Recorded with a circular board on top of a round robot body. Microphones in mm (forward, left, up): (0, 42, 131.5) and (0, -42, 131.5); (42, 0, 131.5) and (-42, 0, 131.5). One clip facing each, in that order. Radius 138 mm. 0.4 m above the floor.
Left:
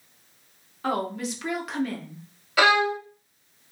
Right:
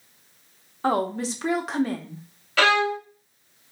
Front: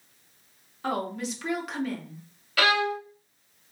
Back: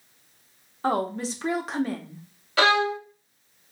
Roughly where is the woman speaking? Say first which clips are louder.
Right 4 dB, back 4 dB; behind right.